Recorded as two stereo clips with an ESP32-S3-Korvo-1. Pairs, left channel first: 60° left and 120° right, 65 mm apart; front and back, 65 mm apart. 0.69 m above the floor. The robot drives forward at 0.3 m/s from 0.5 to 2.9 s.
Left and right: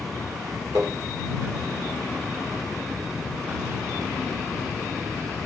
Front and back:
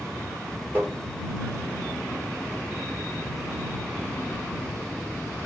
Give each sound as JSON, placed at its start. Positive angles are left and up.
{"t": 0.8, "sound": "tapping", "azimuth_deg": -120, "distance_m": 1.5}